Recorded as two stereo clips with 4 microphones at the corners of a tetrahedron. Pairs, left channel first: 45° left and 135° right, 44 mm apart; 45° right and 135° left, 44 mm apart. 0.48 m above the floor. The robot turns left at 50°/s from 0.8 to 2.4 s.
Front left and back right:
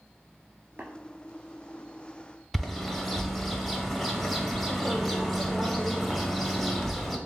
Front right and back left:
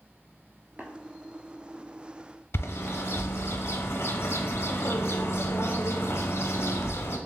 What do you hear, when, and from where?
0.8 s tapping: 160° right, 1.2 m; by 0.9 s 165° right, 1.2 m
2.5 s a bird: 40° right, 0.6 m